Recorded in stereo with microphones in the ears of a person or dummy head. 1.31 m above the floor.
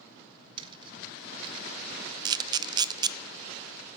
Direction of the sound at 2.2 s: 25° right (ahead or behind).